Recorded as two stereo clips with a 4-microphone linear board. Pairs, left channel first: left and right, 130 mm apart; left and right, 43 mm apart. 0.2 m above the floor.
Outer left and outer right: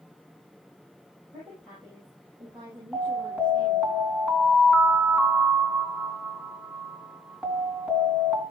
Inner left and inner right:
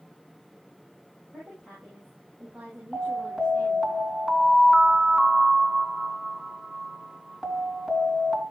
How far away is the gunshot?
I don't hear a gunshot.